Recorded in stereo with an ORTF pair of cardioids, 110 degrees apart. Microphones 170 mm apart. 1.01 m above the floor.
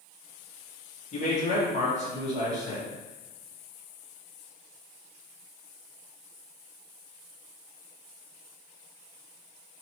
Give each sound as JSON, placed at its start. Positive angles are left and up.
{"t": 1.1, "sound": "a man speaking", "azimuth_deg": 40, "distance_m": 1.9}